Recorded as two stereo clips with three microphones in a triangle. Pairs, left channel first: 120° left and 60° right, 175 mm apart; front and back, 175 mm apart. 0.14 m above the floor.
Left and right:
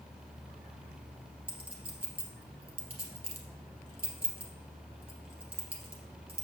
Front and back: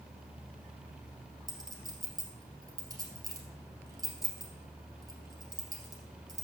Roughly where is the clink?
Behind right.